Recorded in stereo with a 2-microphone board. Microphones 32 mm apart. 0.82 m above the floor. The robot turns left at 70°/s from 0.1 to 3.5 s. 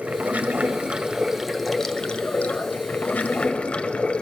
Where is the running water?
70° right, 1.0 m; by 4.2 s 50° left, 1.0 m.